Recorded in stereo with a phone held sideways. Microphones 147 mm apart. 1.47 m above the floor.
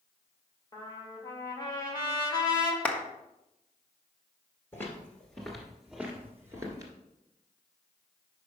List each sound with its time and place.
0.7 s a trumpet: 25° left (ahead or behind), 1.5 m
2.9 s a clap: 10° left (ahead or behind), 0.8 m
4.7 s footsteps: 15° left (ahead or behind), 1.7 m; by 6.9 s 25° right (ahead or behind), 1.6 m